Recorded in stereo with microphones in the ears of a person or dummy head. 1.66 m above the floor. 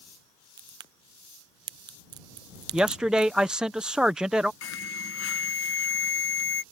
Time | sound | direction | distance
0.6 | a crack | 20° right (ahead or behind) | ?
2.7 | a man speaking | 5° right (ahead or behind) | ?
4.6 | an alarm | 80° left | ?